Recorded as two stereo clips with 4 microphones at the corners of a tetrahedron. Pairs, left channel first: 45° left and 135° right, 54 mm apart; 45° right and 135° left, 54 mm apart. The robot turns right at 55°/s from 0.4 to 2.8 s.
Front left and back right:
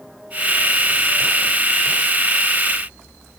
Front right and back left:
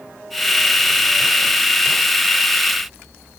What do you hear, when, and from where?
Only background noise.